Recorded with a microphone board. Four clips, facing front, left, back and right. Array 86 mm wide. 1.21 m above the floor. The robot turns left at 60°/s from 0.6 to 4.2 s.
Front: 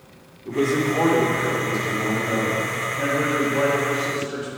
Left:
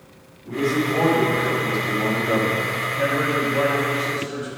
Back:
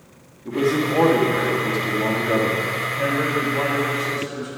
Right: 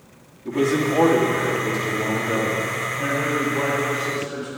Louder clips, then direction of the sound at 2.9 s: Left 2 dB, even; 70° left.